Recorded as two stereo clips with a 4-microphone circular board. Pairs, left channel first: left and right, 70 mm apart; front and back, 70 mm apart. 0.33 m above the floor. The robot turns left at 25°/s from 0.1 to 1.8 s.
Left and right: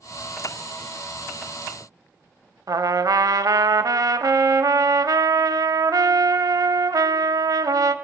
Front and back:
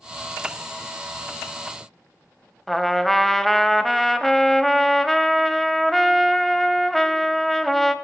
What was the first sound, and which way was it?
A trumpet, 85° right.